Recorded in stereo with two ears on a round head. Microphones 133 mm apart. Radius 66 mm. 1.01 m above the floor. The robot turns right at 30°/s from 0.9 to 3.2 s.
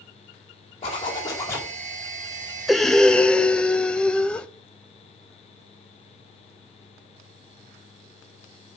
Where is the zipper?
40° left (ahead or behind), 3 m; by 1.7 s 15° left (ahead or behind), 3 m.